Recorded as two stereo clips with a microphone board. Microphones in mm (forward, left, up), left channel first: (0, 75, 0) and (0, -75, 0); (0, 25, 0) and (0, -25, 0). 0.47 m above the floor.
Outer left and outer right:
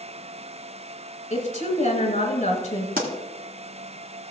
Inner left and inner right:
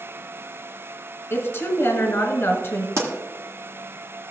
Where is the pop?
80° right, 1.8 m.